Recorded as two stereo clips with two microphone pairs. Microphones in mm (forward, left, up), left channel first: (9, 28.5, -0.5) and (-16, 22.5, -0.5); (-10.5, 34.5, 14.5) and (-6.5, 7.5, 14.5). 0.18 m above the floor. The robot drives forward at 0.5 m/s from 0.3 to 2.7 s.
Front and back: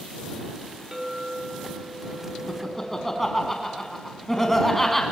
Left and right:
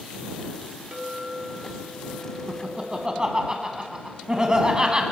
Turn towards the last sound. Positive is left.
turn(degrees=-50)